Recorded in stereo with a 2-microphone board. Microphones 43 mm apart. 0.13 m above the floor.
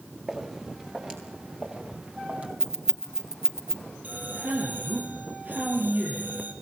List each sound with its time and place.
0.3 s footsteps: 10° right (ahead or behind), 5 m; by 2.5 s 25° right (ahead or behind), 5 m
2.6 s keys jangling: 10° right (ahead or behind), 1.6 m
4.0 s a man speaking: 40° right (ahead or behind), 4 m